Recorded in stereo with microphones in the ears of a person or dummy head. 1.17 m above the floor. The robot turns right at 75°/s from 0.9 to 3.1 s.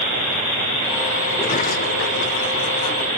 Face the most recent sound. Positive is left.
turn(degrees=165)